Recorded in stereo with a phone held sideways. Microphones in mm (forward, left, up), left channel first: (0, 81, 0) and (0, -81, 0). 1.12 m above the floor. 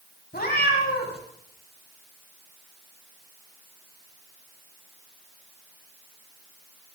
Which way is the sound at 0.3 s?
65° left (ahead or behind).